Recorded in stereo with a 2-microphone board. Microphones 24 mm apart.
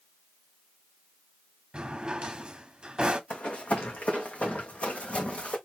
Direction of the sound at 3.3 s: 70° left (ahead or behind).